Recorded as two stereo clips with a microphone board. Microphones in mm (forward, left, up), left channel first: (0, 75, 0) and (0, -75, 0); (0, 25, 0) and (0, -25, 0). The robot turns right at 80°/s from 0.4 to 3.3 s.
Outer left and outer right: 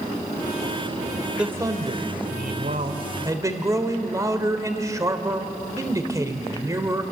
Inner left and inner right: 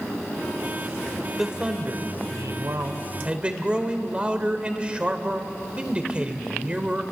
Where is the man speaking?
Straight behind, 2 m; by 7.0 s 25° right, 2 m.